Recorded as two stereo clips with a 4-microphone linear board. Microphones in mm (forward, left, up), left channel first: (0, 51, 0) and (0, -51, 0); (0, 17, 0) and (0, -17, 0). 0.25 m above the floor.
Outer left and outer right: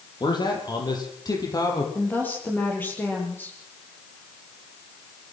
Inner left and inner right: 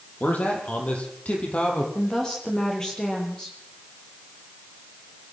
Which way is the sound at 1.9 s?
20° left (ahead or behind).